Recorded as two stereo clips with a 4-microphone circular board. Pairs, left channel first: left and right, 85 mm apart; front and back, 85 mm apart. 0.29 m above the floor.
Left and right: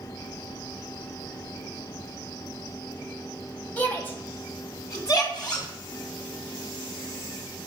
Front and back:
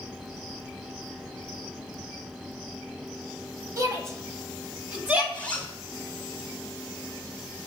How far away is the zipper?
About 1.6 m.